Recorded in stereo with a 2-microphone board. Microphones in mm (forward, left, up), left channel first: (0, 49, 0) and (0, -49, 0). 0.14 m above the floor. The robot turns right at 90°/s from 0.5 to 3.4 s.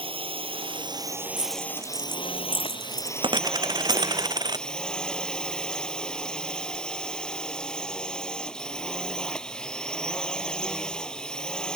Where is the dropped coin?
50° left (ahead or behind); by 4.6 s 45° right (ahead or behind).